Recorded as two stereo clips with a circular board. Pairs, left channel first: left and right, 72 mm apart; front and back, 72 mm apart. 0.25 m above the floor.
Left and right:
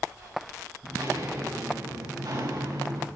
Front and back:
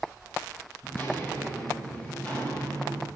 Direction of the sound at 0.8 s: 60° right.